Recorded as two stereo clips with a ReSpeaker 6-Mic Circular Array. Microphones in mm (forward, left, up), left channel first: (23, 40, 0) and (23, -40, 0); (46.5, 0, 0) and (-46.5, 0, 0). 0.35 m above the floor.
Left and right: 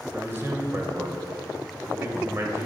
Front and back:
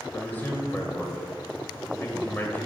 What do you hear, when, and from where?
0.1 s a man speaking: 55° right, 1.2 m